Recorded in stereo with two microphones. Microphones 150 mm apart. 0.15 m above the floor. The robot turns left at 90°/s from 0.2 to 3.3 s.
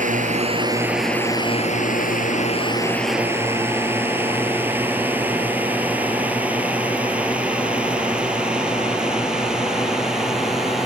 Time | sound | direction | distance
0.0 | a drone | 55° right (ahead or behind) | ?